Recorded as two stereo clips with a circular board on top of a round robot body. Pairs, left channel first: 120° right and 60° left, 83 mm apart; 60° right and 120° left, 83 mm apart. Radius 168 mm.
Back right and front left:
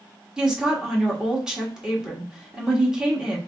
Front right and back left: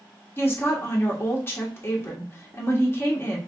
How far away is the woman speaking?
About 1.4 m.